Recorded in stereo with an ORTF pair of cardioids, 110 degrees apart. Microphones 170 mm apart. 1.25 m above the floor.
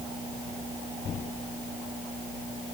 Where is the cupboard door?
I don't hear a cupboard door.